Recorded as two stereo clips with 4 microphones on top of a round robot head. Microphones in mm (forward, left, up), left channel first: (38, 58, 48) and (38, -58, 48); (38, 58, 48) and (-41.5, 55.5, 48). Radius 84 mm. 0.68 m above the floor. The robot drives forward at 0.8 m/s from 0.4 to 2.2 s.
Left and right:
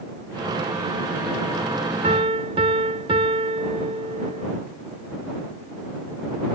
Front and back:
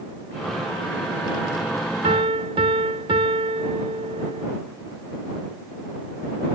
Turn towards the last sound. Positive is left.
turn(degrees=-145)